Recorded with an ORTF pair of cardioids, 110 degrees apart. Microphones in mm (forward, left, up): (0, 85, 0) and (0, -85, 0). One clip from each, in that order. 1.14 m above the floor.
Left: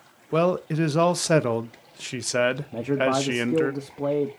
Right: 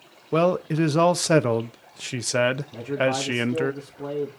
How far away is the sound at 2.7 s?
About 1.7 m.